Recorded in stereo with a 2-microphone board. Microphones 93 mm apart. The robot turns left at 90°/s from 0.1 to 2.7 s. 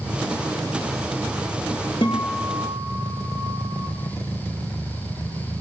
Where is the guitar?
80° left, 4.5 m; by 3.9 s 15° left, 4.5 m.